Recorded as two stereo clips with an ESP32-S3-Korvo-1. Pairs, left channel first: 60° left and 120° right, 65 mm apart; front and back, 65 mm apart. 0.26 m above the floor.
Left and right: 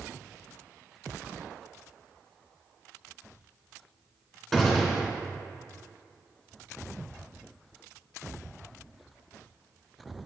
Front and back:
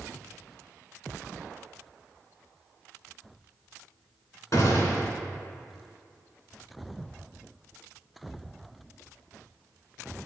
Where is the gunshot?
25° right, 3 m.